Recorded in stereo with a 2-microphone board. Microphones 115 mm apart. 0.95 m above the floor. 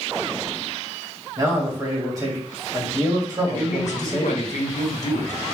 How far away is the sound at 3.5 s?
About 0.8 m.